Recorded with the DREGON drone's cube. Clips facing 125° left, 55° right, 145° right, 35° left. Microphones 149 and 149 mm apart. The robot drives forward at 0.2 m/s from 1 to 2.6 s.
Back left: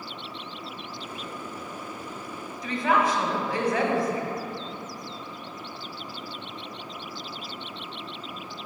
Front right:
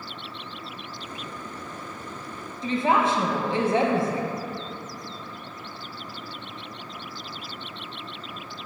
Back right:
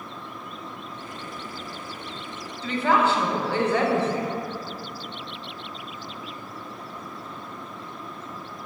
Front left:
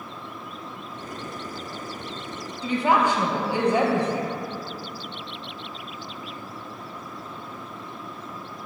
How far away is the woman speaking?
About 0.8 m.